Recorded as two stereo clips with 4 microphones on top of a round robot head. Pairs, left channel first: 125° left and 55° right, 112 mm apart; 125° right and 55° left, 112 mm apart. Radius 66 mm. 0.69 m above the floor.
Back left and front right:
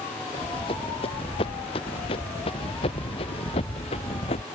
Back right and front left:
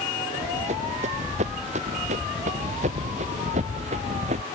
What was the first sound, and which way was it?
Running footsteps, 80° left.